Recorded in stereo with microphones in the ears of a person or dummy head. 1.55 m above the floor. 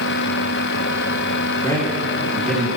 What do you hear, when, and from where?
1.6 s a man speaking: 20° left (ahead or behind), 2 m; by 2.7 s 5° right (ahead or behind), 2.5 m